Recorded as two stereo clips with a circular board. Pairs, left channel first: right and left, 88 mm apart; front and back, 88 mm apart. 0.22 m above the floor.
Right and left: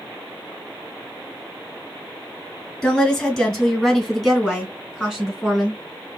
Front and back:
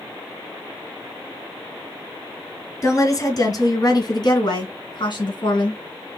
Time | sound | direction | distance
2.8 | a woman speaking | 15° right | 1.8 m